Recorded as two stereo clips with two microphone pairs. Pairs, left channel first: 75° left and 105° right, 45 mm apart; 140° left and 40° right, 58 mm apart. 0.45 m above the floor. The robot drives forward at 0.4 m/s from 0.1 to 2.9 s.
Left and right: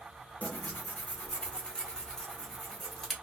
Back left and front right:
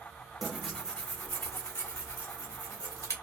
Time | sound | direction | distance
0.4 | tearing paper | 45° left | 0.5 m